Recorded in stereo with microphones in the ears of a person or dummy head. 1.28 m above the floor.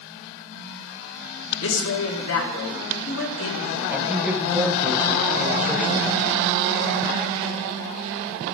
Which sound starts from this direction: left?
A man speaking, at 1.6 s.